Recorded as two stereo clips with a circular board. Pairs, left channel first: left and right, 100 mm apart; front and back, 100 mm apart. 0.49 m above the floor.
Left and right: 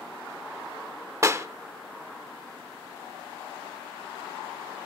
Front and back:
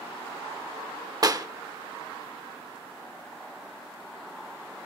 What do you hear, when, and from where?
1.2 s a clap: 140° right, 0.7 m